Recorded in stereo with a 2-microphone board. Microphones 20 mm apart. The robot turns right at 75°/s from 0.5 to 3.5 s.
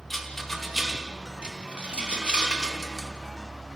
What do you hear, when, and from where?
0.1 s a rattle: 10° left (ahead or behind), 2.5 m; by 3.1 s 5° left (ahead or behind), 2.5 m